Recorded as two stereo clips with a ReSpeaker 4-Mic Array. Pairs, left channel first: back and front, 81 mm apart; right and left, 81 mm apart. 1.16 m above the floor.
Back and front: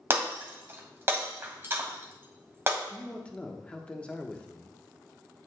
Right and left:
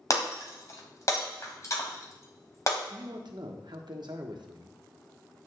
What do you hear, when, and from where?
0.1 s breaking glass: 55° right, 1.5 m
2.9 s a man speaking: 105° left, 1.1 m